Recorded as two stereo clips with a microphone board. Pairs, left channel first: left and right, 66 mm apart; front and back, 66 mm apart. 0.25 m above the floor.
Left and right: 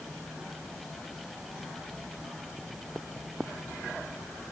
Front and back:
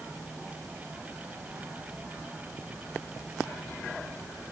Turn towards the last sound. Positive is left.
No sound to turn to.